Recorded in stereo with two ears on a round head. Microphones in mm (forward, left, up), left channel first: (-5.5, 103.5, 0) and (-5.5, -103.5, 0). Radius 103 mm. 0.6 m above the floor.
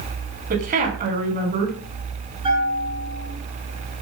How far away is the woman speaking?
About 6.5 m.